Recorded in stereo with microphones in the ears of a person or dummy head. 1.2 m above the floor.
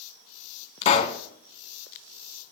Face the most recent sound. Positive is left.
turn(degrees=30)  # may be behind; listen again after turning